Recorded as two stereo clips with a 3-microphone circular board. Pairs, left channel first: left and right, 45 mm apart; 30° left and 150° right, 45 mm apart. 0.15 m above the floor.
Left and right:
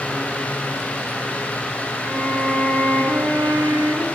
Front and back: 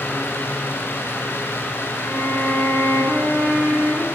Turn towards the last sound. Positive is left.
turn(degrees=-75)